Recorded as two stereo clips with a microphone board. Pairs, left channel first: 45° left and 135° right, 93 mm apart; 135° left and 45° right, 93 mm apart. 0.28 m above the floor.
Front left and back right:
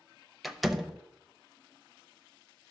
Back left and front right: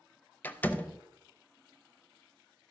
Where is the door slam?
140° left, 0.6 m.